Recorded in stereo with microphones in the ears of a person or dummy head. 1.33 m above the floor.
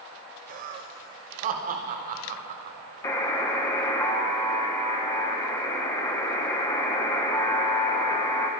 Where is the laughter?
45° right (ahead or behind), 0.8 m.